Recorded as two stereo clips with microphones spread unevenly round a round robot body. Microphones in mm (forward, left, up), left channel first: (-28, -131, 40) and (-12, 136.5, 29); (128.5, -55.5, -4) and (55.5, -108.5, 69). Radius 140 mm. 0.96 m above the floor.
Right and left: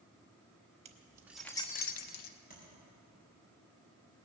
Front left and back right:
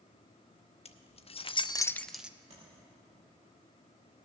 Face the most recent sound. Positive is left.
turn(degrees=-150)